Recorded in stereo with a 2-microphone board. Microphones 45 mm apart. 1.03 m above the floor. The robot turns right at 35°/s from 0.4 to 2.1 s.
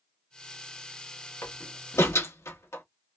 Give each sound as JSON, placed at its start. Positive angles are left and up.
{"t": 1.4, "sound": "a door slam", "side_deg": 75, "distance_m": 1.2}